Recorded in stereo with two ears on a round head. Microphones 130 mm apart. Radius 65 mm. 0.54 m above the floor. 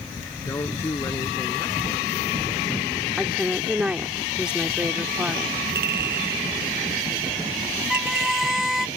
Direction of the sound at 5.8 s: 75° right (ahead or behind).